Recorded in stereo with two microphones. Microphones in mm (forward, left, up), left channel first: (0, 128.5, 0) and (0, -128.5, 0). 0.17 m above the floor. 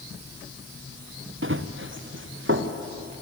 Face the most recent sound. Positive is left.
turn(degrees=-50)  # may be behind; listen again after turning